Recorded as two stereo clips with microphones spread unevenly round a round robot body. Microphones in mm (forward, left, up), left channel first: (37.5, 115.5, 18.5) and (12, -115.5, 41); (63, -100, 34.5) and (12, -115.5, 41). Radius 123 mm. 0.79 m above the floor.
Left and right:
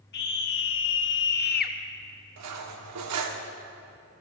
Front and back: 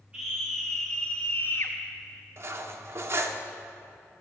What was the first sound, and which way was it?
A scream, 120° left.